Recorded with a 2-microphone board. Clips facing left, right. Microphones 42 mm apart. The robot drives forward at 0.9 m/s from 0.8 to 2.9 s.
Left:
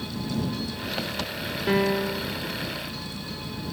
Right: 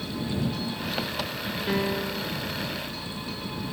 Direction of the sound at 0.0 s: 5° right (ahead or behind).